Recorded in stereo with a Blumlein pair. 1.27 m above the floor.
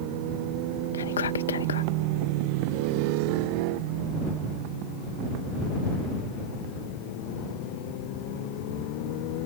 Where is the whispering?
65° left.